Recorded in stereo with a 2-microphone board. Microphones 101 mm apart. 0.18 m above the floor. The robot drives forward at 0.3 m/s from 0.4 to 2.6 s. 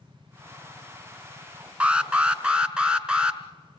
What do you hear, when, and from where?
1.8 s an alarm: 10° right (ahead or behind), 1.0 m